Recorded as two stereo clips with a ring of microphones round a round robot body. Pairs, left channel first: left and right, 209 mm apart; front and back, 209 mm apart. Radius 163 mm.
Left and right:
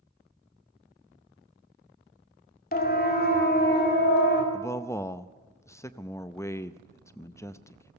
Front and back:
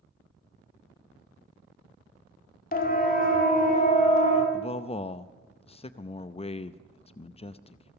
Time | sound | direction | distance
2.7 | a siren | 45° left | 2 m
4.5 | a man speaking | 25° left | 0.6 m